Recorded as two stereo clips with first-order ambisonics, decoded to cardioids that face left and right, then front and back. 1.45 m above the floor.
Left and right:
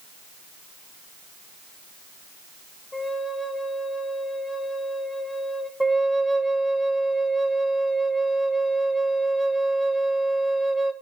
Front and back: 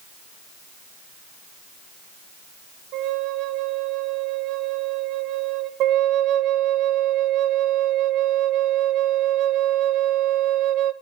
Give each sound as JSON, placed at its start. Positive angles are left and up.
{"t": 2.9, "sound": "a flute", "azimuth_deg": 170, "distance_m": 1.0}
{"t": 5.8, "sound": "a flute", "azimuth_deg": -175, "distance_m": 0.8}